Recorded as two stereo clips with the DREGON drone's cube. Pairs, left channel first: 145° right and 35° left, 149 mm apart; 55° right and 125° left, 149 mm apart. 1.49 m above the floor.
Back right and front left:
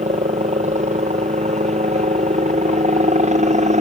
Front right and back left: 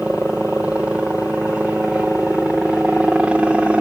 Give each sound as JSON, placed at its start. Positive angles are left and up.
{"t": 0.0, "sound": "a helicopter", "azimuth_deg": 45}